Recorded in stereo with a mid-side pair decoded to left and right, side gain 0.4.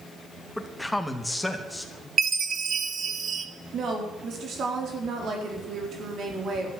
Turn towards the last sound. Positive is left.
turn(degrees=-65)